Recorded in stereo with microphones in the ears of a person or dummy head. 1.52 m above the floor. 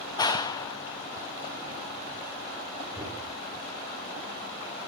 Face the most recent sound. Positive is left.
turn(degrees=-15)  # may be behind; listen again after turning